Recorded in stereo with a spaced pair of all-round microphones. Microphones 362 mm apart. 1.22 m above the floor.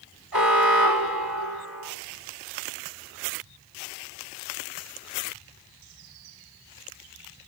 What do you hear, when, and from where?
0.3 s an alarm: 85° right, 3 m